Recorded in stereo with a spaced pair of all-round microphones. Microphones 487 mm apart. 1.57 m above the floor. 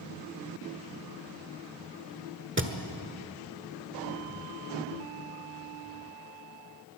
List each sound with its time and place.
2.6 s a thud: 25° right (ahead or behind), 1.3 m